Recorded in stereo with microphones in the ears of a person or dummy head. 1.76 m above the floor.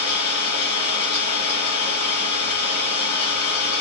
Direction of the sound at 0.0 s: 20° left (ahead or behind).